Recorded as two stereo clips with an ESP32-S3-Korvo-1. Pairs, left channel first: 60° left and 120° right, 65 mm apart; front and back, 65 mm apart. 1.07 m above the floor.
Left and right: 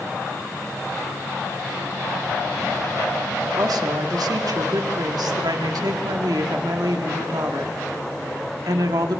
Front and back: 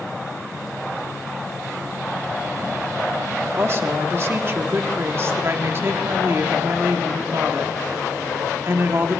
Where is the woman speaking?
130° right, 2 m.